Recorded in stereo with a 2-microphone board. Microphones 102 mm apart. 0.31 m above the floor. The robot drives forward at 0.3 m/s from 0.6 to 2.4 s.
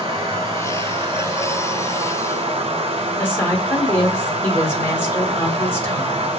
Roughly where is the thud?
I don't hear a thud.